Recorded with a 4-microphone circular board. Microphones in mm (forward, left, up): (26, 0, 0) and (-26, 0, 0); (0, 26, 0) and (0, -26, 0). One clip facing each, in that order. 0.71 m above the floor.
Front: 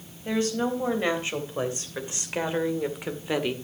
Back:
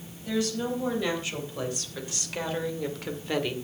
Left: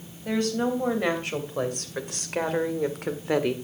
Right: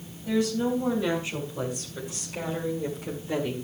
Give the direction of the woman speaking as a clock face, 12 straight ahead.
10 o'clock.